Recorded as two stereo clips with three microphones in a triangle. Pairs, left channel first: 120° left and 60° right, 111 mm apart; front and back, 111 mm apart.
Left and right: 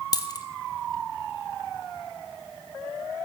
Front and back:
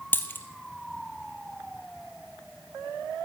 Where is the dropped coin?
70° left, 1.5 m.